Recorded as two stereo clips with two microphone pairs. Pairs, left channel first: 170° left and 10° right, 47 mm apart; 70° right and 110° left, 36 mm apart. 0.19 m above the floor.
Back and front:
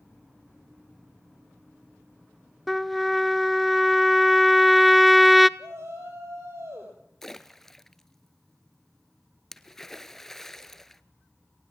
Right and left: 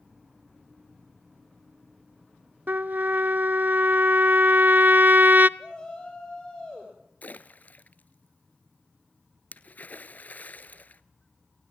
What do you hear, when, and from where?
2.7 s a trumpet: 75° left, 0.5 m
5.6 s a shout: 10° right, 4.5 m
7.2 s a splash: 110° right, 0.8 m